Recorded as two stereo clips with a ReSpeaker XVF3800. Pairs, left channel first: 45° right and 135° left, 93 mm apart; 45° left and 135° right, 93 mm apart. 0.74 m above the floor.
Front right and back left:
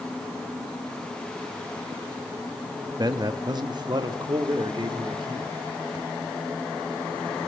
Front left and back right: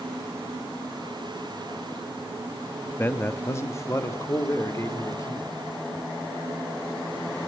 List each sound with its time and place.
3.0 s a man speaking: 105° left, 0.8 m; by 5.5 s 100° left, 2 m